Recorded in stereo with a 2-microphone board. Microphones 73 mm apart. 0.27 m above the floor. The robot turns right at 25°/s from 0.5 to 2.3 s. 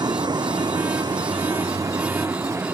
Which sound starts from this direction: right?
A vehicle, at 0.0 s.